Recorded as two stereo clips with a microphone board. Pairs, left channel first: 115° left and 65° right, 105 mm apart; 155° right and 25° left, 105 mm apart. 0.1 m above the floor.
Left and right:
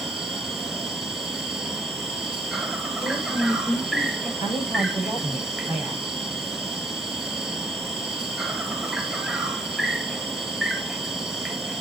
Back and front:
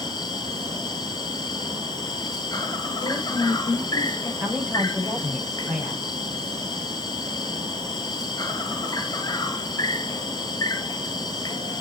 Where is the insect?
155° right, 2.5 m.